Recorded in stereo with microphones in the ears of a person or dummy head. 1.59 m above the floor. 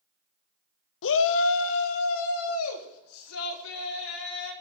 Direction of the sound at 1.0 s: 65° left (ahead or behind).